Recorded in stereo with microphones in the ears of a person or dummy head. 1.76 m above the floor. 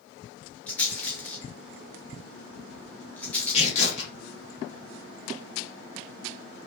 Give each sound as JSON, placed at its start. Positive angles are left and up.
{"t": 0.7, "sound": "a rattle", "side_deg": 10, "distance_m": 0.6}
{"t": 3.5, "sound": "tearing paper", "side_deg": 40, "distance_m": 1.4}